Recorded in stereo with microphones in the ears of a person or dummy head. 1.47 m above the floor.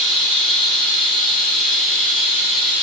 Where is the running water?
5° left (ahead or behind), 2 m.